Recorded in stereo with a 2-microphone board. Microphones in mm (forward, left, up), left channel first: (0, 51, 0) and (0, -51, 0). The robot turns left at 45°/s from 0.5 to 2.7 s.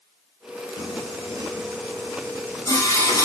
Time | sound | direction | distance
0.8 | singing | 45° left (ahead or behind) | 1.3 m